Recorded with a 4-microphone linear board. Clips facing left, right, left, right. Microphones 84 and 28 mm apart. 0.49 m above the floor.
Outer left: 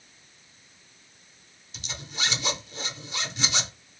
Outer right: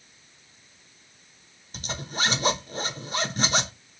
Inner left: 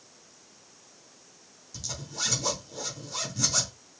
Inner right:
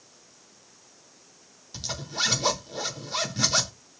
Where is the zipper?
45° right (ahead or behind), 0.7 m.